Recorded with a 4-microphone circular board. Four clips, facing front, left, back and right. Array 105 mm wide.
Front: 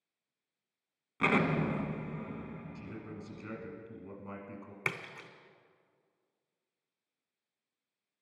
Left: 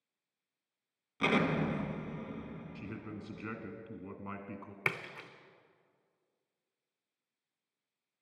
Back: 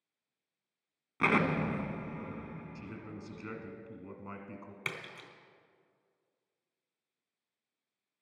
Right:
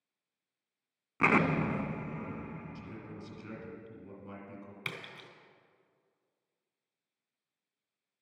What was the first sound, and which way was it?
An explosion, 105° right.